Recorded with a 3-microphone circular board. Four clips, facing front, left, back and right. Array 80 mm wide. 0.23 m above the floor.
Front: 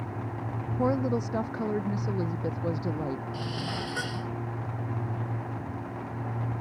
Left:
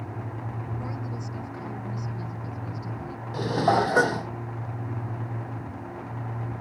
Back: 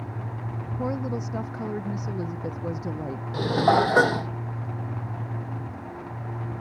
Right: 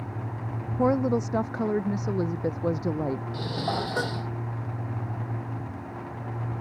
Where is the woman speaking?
80° right; by 3.2 s 90° right.